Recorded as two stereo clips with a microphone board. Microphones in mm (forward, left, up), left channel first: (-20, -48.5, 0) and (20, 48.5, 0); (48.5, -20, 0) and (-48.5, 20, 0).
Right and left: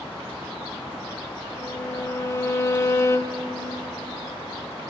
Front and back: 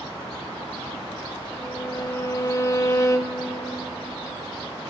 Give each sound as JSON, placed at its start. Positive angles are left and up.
{"t": 1.6, "sound": "a violin", "azimuth_deg": -65, "distance_m": 0.9}